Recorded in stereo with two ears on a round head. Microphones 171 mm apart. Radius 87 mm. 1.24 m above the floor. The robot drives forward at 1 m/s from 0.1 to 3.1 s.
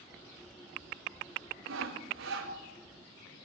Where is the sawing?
85° right, 4 m; by 2.5 s 75° right (ahead or behind), 4.5 m.